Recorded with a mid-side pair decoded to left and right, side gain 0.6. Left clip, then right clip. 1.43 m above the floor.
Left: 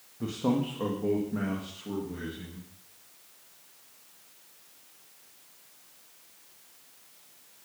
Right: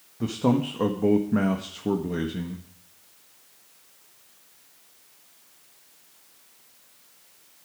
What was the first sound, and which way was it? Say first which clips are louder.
A man speaking: right 5 dB; 30° right.